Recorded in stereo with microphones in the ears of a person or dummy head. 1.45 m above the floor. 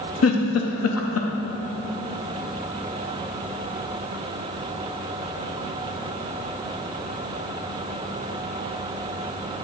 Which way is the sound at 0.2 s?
75° left (ahead or behind).